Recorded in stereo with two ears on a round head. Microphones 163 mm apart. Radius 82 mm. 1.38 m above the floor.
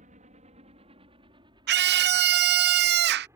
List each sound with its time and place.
0.0 s a helicopter: 45° right (ahead or behind); by 3.4 s 15° right (ahead or behind)
1.7 s a scream: 60° right (ahead or behind)